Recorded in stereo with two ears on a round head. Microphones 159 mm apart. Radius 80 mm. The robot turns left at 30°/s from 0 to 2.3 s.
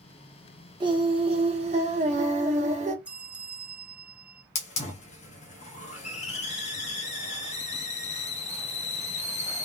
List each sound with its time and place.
0.8 s singing: 40° right, 1.0 m; by 3.0 s 85° right, 1.0 m
3.0 s a bell: 5° right (ahead or behind), 0.6 m
4.5 s a hiss: 40° left (ahead or behind), 1.2 m